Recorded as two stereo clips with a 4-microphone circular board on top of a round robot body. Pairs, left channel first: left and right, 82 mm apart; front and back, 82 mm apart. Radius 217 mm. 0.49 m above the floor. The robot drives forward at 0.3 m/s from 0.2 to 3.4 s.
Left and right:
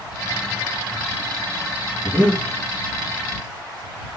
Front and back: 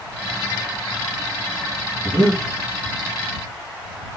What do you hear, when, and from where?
2.0 s breathing: 135° left, 3 m; by 2.4 s 140° left, 3 m